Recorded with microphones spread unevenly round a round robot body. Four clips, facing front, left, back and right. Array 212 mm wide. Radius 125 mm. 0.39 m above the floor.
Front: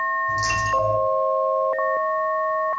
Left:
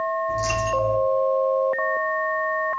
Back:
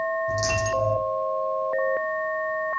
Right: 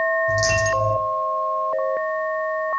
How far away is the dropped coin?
About 6 m.